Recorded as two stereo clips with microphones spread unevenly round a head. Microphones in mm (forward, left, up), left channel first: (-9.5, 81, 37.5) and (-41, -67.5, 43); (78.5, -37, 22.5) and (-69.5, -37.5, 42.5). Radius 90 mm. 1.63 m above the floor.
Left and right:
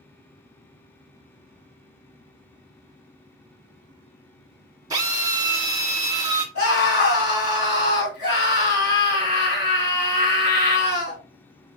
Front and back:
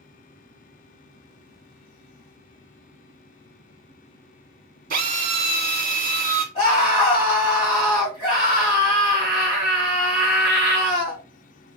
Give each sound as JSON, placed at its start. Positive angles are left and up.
{"t": 4.9, "sound": "a drill", "azimuth_deg": -165, "distance_m": 1.1}
{"t": 6.5, "sound": "a scream", "azimuth_deg": 65, "distance_m": 3.0}